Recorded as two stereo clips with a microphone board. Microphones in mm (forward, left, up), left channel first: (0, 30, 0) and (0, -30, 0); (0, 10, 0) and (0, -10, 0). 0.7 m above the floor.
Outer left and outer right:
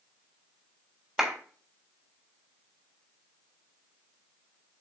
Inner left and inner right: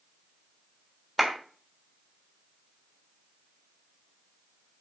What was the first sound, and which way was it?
A clap, 10° right (ahead or behind).